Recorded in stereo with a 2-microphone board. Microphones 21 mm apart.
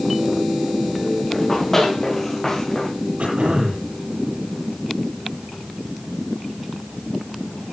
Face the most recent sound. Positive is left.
turn(degrees=-75)  # may be behind; listen again after turning